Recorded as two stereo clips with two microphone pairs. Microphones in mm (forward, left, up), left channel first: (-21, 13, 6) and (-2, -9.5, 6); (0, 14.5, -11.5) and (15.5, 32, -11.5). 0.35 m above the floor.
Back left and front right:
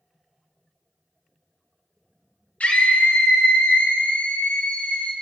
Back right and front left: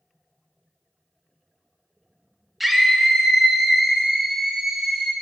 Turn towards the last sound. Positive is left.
turn(degrees=120)